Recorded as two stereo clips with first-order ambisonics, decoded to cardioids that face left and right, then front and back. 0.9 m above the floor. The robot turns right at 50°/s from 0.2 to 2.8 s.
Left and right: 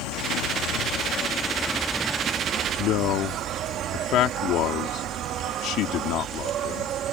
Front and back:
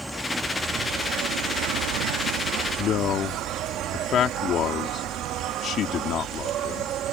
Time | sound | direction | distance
0.0 | an insect | 90° left | ?
2.8 | a man speaking | 50° left | ?